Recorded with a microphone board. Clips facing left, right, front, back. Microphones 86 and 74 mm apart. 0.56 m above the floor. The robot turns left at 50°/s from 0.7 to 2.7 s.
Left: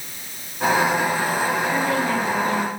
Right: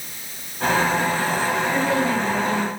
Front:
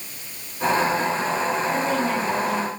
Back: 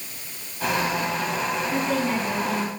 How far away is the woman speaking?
About 4 m.